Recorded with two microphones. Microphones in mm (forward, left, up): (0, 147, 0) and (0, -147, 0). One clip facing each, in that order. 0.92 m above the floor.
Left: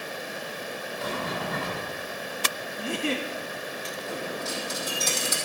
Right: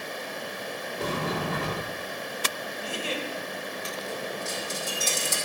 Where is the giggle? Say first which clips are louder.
Left 5 dB; 65° left (ahead or behind), 1.3 m.